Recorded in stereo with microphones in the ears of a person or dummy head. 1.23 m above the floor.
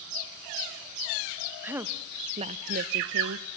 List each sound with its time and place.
1.6 s a woman speaking: 10° right (ahead or behind), 1.0 m; by 3.5 s 85° right, 0.8 m